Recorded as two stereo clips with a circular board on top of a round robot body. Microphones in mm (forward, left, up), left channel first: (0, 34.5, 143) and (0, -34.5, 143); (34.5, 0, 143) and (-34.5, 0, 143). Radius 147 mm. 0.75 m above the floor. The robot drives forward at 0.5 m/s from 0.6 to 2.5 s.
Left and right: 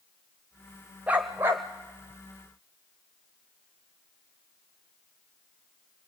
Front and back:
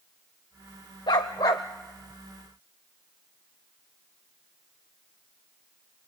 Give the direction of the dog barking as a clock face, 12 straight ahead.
1 o'clock.